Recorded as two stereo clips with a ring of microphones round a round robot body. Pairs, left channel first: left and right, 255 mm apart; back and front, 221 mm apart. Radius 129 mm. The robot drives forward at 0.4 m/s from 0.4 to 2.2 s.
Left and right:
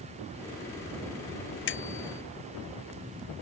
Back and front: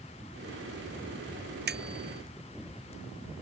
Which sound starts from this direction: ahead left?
A bicycle bell, at 1.7 s.